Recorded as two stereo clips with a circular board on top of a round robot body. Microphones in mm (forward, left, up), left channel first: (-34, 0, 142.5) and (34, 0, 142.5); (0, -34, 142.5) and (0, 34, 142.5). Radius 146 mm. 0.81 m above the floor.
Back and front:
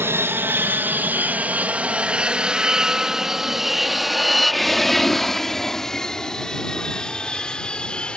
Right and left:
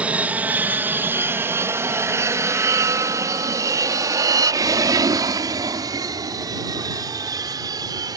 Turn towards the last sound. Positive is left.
turn(degrees=105)